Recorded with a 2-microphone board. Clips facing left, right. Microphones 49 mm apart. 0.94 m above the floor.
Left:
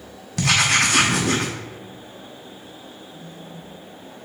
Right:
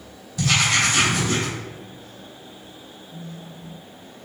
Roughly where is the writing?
Left.